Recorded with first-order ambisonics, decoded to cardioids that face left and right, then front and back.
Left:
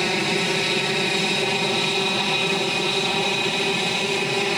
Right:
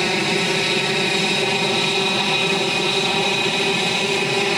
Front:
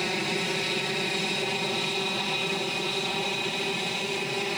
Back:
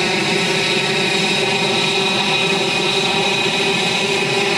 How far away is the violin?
I don't hear a violin.